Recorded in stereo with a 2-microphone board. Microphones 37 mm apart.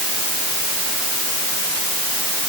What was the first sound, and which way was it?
Only background noise.